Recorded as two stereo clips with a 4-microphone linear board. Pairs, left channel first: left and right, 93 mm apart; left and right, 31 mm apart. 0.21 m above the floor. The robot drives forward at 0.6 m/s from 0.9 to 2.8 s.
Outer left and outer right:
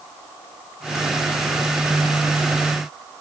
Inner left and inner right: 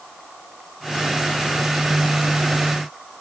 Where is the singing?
No singing in this recording.